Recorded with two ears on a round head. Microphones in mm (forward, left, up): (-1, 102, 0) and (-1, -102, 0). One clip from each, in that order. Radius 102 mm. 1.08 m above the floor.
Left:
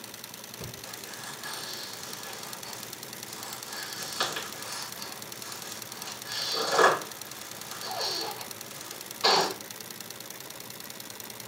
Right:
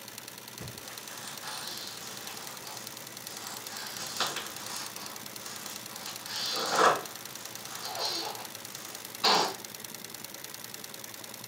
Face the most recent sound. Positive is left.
turn(degrees=5)  # may be behind; listen again after turning